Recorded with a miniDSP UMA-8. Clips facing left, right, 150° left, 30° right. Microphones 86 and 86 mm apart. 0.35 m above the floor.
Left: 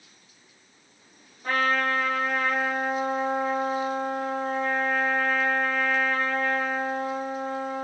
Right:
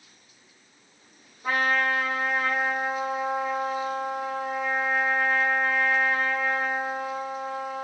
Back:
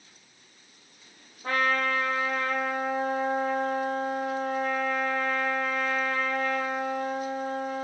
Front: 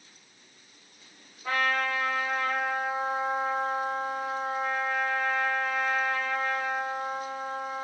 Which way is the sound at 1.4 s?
170° right.